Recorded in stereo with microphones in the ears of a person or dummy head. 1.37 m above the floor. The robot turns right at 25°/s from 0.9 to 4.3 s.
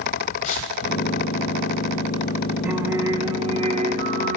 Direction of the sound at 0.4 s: 40° left (ahead or behind).